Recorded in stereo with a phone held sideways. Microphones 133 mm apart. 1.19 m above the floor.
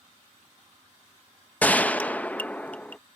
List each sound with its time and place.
1.6 s a gunshot: 10° left (ahead or behind)